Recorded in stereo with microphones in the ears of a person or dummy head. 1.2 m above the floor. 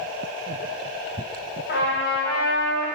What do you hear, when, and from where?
1.7 s a trumpet: 50° left (ahead or behind), 1.8 m